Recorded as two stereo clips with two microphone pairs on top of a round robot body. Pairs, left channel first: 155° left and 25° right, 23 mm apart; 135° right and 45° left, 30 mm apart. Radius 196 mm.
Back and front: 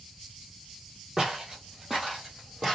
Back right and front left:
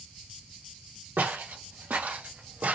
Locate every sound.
1.2 s footsteps: 50° left, 2 m; by 2.8 s 75° left, 3 m